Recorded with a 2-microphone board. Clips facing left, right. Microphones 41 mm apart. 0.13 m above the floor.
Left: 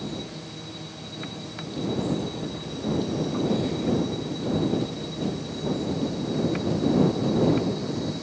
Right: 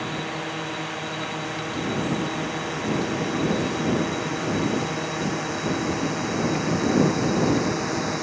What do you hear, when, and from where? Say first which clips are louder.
0.0 s a drone: right 6 dB; 80° right; by 8.2 s 70° right (ahead or behind)